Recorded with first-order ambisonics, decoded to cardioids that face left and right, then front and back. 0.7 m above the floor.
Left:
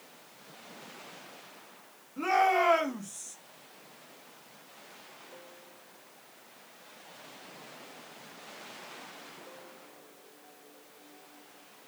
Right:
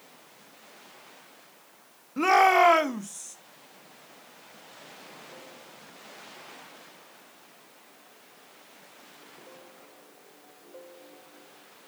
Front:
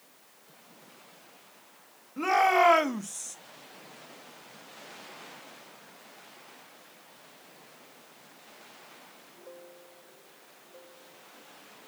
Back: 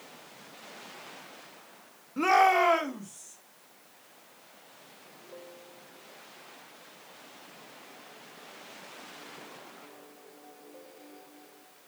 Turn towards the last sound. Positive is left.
turn(degrees=-5)